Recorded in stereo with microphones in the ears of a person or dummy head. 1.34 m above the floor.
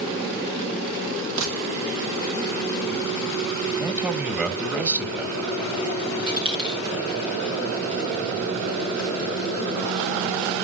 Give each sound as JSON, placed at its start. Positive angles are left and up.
{"t": 1.4, "sound": "a gunshot", "side_deg": -85, "distance_m": 2.5}
{"t": 3.8, "sound": "a man speaking", "side_deg": -10, "distance_m": 1.9}
{"t": 6.3, "sound": "a dropped coin", "side_deg": -25, "distance_m": 1.4}